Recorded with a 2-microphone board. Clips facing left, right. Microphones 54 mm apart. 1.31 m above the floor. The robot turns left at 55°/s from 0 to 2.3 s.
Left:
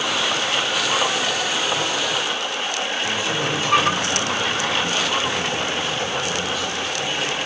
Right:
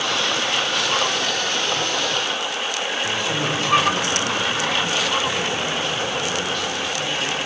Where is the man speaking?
5° left (ahead or behind), 7.5 m.